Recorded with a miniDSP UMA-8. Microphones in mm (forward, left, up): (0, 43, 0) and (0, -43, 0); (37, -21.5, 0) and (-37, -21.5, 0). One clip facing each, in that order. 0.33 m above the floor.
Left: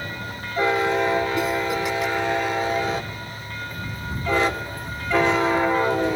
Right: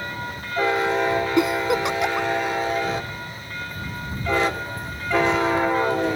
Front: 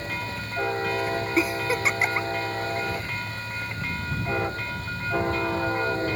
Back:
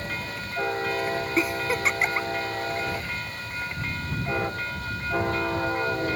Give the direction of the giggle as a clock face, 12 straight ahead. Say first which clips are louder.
Right 3 dB, front 1 dB; 3 o'clock.